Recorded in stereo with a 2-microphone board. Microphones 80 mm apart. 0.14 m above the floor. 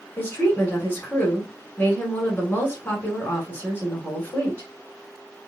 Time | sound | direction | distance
0.2 | a woman speaking | 25° left (ahead or behind) | 1.2 m